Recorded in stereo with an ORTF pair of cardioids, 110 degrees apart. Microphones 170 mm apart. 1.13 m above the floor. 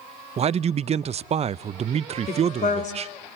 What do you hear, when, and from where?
0.4 s a man speaking: 35° right, 0.6 m
2.3 s a woman speaking: 45° left, 4 m